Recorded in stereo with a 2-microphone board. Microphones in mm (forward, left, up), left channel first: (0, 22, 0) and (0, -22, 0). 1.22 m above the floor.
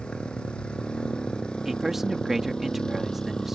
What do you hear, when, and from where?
0.0 s a motorcycle: 20° left (ahead or behind); by 3.5 s 15° left (ahead or behind)
1.6 s a man speaking: 5° right (ahead or behind)